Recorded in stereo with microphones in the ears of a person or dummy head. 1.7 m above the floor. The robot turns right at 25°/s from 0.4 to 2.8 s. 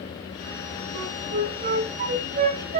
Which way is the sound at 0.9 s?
20° right (ahead or behind).